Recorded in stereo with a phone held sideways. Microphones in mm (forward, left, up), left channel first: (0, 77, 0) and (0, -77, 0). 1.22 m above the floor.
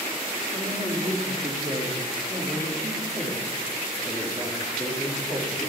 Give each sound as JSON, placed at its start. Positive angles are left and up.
{"t": 0.5, "sound": "a man speaking", "side_deg": -30, "distance_m": 2.5}